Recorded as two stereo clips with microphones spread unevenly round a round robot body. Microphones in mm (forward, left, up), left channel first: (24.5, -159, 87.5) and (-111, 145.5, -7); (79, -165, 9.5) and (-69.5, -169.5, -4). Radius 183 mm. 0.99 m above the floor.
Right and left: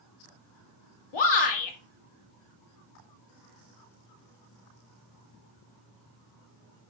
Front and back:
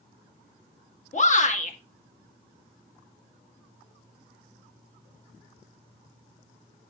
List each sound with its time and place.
1.1 s a shout: 40° right, 2 m